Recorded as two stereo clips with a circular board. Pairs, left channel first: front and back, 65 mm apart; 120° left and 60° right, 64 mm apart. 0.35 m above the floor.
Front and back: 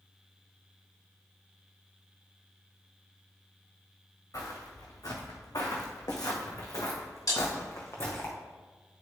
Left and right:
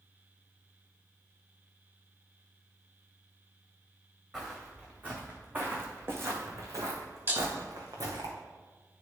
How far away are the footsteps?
About 1.9 m.